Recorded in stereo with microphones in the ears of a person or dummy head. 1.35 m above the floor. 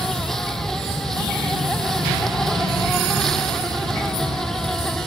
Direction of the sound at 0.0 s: 5° left (ahead or behind).